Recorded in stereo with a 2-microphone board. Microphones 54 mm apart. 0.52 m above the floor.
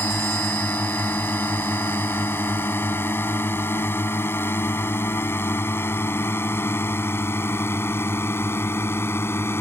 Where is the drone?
40° left (ahead or behind); by 9.6 s 50° left (ahead or behind).